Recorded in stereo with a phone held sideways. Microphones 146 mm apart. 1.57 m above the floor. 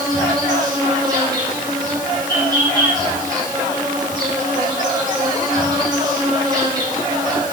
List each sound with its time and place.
0.0 s an insect: 30° right (ahead or behind), 4 m